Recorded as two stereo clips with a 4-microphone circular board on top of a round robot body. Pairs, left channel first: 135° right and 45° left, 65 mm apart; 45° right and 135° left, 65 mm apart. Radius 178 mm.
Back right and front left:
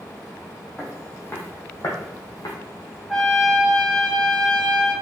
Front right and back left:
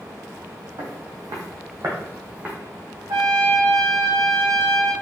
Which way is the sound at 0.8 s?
150° left.